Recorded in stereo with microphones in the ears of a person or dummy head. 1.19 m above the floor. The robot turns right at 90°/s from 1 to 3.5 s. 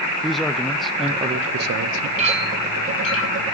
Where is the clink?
45° right, 6.5 m; by 3.5 s 70° left, 6.5 m.